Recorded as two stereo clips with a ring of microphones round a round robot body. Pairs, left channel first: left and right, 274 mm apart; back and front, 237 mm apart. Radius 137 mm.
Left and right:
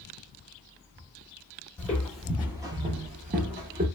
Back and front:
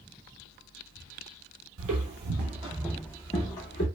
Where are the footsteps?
5° left, 0.9 m; by 3.9 s 140° right, 0.9 m.